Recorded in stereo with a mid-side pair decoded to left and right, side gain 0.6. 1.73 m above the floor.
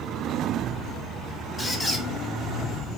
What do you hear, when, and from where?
1.6 s a squeak: 10° left, 4 m